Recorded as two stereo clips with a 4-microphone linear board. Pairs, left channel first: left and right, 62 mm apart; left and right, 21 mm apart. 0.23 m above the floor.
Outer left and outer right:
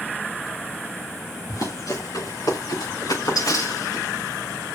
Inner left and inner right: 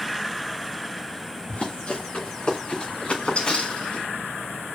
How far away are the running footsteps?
About 2.5 m.